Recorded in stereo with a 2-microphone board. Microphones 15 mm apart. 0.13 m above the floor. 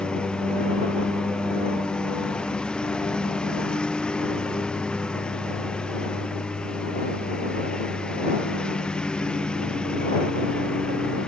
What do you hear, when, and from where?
0.0 s a lawn mower: 80° left